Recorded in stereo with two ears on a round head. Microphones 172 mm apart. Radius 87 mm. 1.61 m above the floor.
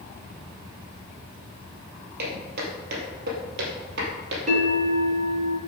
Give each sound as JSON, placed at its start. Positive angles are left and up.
{"t": 2.2, "sound": "footsteps", "side_deg": -50, "distance_m": 3.0}
{"t": 4.5, "sound": "a bell", "side_deg": -40, "distance_m": 3.0}